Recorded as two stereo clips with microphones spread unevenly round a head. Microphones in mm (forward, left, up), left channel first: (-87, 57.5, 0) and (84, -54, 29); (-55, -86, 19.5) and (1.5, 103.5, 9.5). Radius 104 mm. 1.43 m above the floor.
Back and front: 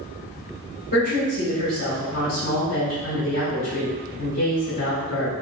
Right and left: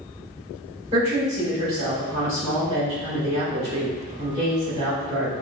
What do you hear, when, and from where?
0.9 s a woman speaking: 130° left, 1.8 m